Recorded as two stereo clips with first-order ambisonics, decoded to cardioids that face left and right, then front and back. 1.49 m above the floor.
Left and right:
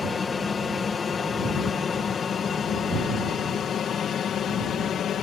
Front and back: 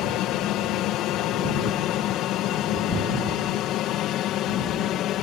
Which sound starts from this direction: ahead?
An aircraft, at 0.0 s.